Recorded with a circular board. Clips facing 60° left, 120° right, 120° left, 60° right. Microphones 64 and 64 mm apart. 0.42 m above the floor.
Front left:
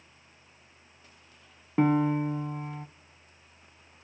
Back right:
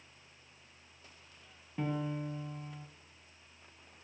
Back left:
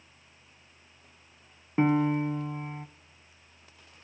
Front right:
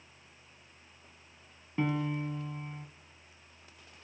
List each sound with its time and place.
1.8 s a piano: 65° left, 0.5 m